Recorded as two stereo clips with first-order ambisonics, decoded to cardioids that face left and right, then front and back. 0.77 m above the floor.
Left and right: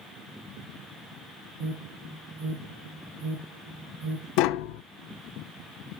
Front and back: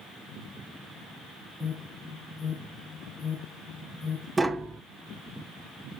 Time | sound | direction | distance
1.6 | an alarm | 75° right | 2 m
4.4 | tapping | 105° left | 0.5 m